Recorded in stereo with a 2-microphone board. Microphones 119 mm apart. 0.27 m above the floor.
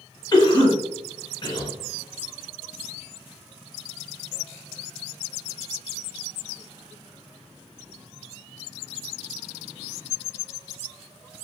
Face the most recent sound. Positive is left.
turn(degrees=40)  # may be behind; listen again after turning